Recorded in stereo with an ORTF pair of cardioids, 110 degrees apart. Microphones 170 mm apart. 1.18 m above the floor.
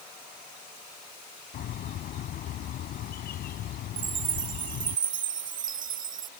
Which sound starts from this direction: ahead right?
A chime, at 4.0 s.